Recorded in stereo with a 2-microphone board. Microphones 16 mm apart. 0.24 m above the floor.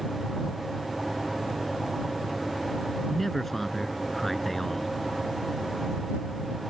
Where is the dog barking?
I don't hear a dog barking.